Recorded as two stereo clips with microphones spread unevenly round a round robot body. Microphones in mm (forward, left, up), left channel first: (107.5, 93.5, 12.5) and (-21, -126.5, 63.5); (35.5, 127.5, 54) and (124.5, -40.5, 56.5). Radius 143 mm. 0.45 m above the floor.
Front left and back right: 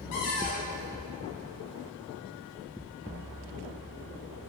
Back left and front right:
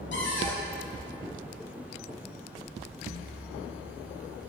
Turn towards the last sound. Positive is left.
turn(degrees=100)